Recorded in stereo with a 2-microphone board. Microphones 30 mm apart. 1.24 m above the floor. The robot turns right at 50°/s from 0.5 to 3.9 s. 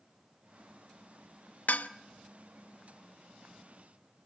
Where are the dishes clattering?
65° left (ahead or behind), 0.9 m; by 1.9 s 60° left (ahead or behind), 0.9 m.